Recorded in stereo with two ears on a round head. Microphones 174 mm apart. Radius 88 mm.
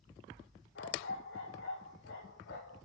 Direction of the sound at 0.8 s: 65° left (ahead or behind).